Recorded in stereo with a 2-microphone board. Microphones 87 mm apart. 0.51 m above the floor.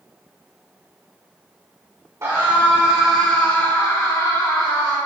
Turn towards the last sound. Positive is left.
turn(degrees=60)  # may be behind; listen again after turning